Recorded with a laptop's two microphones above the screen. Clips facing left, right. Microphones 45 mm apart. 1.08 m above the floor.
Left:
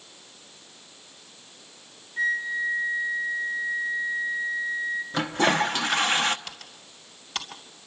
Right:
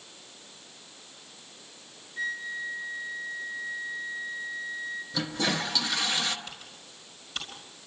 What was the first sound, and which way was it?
A flute, 25° left (ahead or behind).